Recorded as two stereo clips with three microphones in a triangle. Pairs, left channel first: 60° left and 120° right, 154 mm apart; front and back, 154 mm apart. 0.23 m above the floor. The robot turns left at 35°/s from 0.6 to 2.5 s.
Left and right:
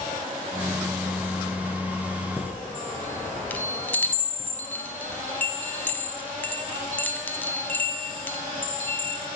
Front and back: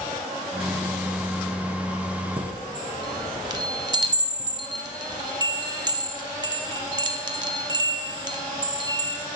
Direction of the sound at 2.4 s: 140° left.